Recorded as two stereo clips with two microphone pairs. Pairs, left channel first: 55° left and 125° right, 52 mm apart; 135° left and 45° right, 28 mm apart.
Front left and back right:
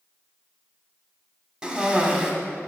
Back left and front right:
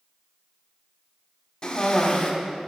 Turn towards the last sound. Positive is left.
turn(degrees=170)